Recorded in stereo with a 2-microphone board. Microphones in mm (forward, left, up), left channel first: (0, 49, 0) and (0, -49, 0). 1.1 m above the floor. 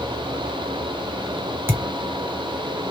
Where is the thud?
25° right (ahead or behind), 1.6 m.